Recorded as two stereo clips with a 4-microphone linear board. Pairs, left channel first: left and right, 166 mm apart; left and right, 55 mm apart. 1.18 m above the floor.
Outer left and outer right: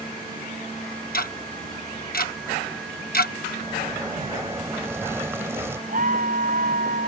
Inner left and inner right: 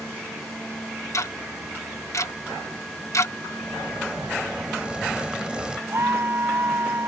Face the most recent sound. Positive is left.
turn(degrees=-55)  # may be behind; listen again after turning